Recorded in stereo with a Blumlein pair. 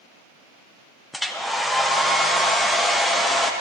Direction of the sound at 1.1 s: 5° left.